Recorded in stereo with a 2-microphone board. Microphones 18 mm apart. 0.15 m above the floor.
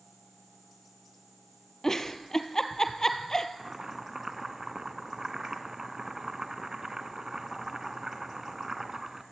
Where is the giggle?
25° left (ahead or behind), 1.4 m.